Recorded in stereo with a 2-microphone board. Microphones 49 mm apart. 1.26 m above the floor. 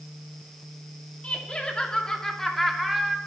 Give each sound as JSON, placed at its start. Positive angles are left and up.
{"t": 1.2, "sound": "laughter", "side_deg": 25, "distance_m": 2.5}